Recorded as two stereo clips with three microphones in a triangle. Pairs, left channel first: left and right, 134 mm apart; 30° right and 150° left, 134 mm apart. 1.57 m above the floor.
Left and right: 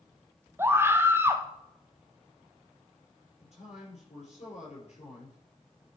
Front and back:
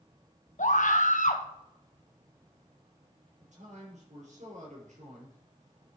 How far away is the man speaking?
About 6.5 m.